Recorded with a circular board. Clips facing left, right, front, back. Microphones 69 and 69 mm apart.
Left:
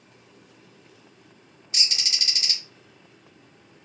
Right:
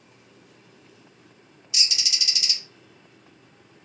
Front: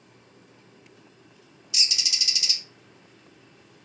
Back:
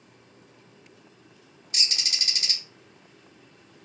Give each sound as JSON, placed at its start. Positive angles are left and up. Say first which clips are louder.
{"t": 1.7, "sound": "a bird", "louder": "even, even", "azimuth_deg": 135, "distance_m": 0.6}